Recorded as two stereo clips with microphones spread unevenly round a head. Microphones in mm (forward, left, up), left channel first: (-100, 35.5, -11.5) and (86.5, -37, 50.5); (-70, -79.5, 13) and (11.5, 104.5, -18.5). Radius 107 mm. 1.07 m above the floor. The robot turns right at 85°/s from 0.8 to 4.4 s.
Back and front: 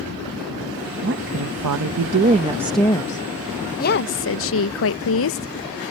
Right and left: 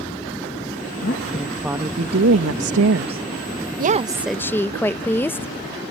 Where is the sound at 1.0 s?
70° right; by 3.2 s 120° left.